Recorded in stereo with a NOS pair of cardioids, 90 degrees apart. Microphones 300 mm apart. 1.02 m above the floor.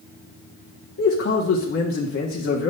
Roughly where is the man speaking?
Ahead left.